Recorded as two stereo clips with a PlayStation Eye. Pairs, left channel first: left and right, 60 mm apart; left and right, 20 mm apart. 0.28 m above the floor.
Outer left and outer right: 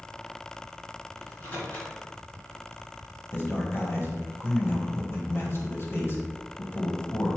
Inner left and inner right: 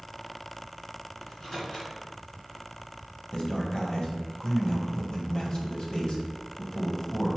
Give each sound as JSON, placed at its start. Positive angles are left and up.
{"t": 1.2, "sound": "a microwave", "side_deg": 35, "distance_m": 2.5}
{"t": 3.3, "sound": "a man speaking", "side_deg": 45, "distance_m": 1.5}